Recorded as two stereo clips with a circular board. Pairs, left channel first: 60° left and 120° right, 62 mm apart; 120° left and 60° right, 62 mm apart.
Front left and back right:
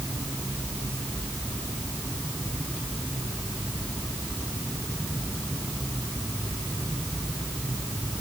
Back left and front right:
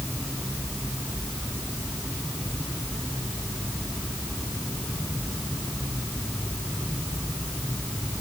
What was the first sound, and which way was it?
Only background noise.